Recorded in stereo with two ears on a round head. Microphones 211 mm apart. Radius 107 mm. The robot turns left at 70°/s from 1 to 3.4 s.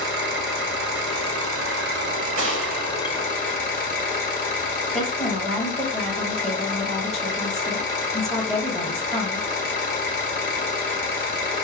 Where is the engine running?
60° right, 1.7 m; by 11.6 s 135° left, 1.7 m.